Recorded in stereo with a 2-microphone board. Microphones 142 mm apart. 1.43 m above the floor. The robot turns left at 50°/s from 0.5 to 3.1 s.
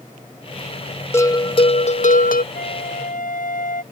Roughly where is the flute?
Left.